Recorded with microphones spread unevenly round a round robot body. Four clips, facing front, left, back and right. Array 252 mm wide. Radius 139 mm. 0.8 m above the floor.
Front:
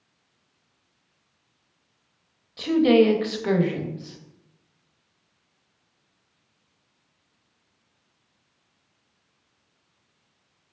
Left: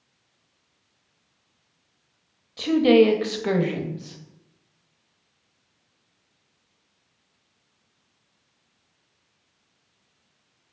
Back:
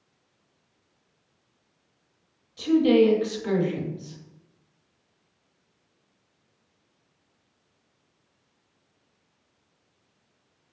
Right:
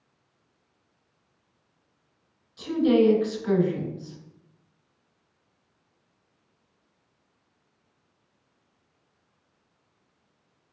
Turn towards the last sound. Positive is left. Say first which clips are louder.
# left 4 dB, front 1 dB
turn(degrees=55)